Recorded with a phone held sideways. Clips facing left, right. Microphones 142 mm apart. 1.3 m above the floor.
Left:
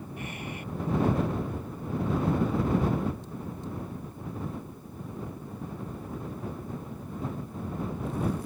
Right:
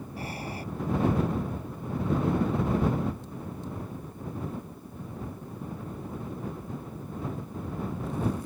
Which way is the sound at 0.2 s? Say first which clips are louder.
Right 3 dB; 35° right (ahead or behind).